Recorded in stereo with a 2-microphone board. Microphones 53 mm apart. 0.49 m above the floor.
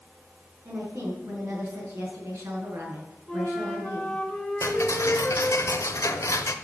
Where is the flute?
10° left (ahead or behind), 2.5 m.